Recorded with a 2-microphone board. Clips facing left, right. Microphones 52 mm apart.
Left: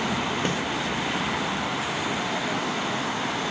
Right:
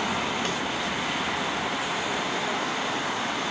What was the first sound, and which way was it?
A snare drum, 25° left (ahead or behind).